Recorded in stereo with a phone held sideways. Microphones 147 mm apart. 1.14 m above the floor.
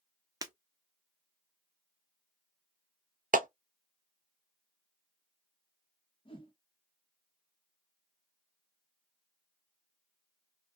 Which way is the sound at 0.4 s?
25° right (ahead or behind).